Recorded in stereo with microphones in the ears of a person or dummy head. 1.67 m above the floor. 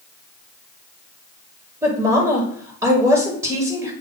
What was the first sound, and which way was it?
A woman speaking, 15° right (ahead or behind).